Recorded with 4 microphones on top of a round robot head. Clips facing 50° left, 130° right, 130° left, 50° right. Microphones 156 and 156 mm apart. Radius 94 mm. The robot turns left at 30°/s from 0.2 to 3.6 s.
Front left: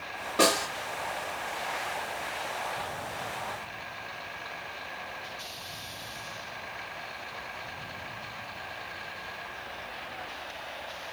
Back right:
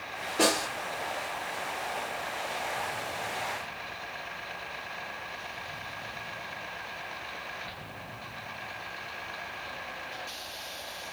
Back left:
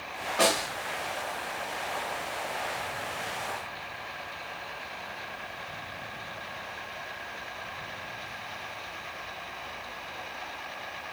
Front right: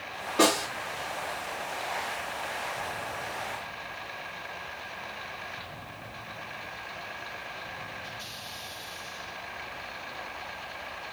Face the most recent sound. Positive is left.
turn(degrees=-70)